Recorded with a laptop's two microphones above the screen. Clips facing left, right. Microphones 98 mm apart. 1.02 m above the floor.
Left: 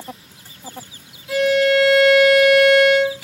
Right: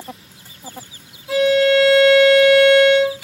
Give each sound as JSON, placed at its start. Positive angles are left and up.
{"t": 1.3, "sound": "a violin", "side_deg": -30, "distance_m": 1.4}